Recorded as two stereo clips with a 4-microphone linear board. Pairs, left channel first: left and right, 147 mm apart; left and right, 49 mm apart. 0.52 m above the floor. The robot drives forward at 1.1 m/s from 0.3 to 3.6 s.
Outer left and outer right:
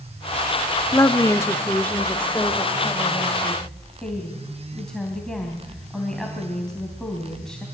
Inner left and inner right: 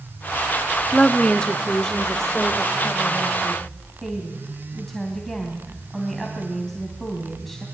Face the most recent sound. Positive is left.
turn(degrees=5)  # may be behind; listen again after turning